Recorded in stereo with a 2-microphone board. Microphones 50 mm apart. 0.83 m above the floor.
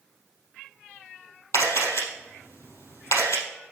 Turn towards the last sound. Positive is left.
turn(degrees=70)  # may be behind; listen again after turning